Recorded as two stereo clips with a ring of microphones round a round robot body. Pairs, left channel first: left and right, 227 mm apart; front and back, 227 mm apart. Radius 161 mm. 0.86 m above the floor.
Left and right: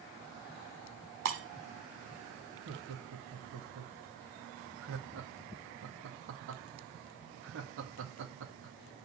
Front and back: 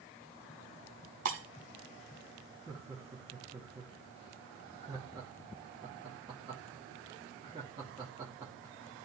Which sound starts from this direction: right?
Laughter, at 2.7 s.